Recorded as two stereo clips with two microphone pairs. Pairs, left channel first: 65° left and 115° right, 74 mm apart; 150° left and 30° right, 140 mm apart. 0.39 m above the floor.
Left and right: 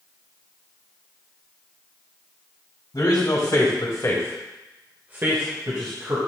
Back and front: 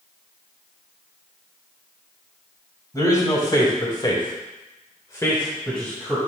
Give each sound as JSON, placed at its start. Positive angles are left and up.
{"t": 2.9, "sound": "a man speaking", "azimuth_deg": 85, "distance_m": 3.0}